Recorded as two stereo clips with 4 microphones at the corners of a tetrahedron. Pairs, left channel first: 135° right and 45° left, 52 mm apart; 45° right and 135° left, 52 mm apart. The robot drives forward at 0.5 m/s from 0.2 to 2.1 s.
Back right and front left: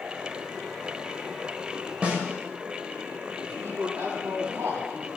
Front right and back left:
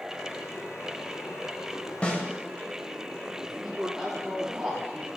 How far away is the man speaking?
About 2.5 m.